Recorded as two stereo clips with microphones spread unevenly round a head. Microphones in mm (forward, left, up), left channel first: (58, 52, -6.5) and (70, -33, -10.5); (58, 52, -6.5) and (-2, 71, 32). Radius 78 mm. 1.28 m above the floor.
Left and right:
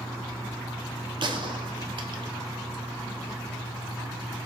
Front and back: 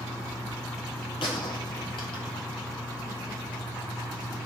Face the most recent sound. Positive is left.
turn(degrees=-55)